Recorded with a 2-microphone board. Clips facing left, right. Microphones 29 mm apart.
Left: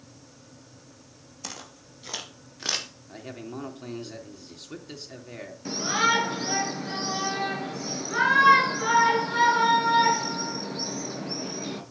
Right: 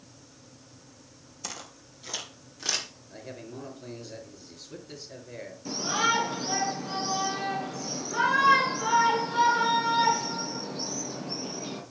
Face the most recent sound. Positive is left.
turn(degrees=40)  # may be behind; listen again after turning